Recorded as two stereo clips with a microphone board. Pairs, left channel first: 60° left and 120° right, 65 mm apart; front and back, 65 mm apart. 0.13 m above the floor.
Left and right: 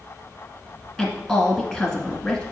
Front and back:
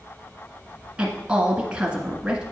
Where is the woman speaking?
130° left, 1.5 m.